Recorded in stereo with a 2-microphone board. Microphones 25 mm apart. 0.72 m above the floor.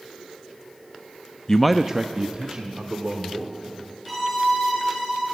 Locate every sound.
1.5 s a man speaking: 25° left (ahead or behind), 0.5 m; by 3.5 s 50° right (ahead or behind), 2.5 m
4.0 s a violin: 5° left (ahead or behind), 9.5 m